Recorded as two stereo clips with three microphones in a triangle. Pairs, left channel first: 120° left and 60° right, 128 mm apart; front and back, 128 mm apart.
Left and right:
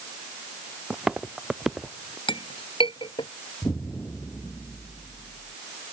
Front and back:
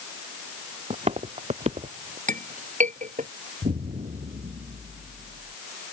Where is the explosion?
165° right.